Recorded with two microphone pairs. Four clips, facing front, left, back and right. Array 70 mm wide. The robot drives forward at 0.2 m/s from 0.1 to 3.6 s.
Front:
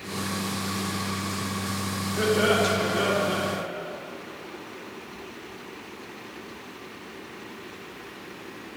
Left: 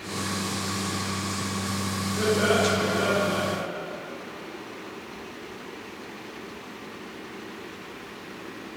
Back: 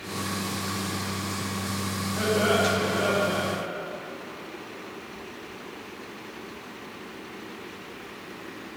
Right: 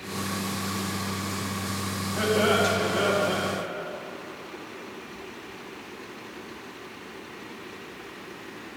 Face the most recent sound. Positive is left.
turn(degrees=-120)